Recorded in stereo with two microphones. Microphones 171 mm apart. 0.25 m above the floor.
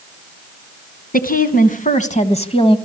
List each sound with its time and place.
1.1 s a woman speaking: 60° left (ahead or behind), 3 m; by 2.8 s 30° left (ahead or behind), 1.8 m